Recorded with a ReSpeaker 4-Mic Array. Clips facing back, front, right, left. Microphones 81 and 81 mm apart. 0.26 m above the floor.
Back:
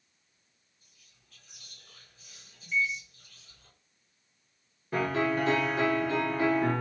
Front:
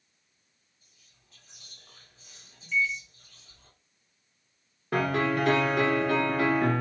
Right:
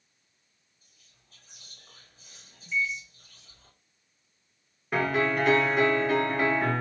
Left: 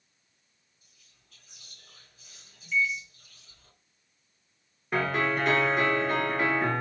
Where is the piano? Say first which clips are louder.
Front 2 dB, right 1 dB; straight ahead, 1.5 m.